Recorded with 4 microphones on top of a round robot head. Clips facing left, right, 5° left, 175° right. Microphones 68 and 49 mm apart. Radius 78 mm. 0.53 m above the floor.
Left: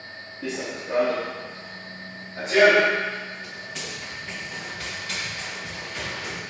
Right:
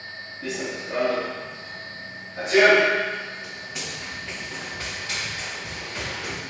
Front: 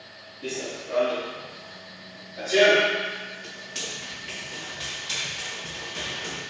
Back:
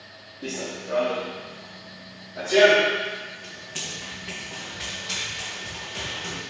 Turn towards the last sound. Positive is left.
turn(degrees=-160)